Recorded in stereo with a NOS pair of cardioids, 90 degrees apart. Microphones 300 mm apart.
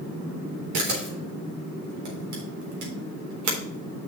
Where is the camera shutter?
70° right, 4 m.